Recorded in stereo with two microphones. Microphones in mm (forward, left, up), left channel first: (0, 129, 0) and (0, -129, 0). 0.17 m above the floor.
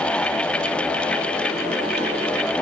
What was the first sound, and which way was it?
Only background noise.